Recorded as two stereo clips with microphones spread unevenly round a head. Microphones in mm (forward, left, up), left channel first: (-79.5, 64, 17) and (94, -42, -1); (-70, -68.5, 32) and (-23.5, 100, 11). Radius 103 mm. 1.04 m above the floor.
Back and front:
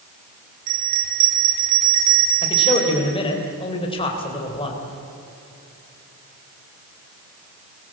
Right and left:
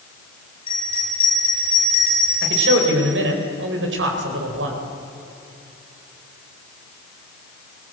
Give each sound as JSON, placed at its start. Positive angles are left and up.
{"t": 0.7, "sound": "a bell", "azimuth_deg": -40, "distance_m": 5.0}
{"t": 2.4, "sound": "a man speaking", "azimuth_deg": 85, "distance_m": 3.5}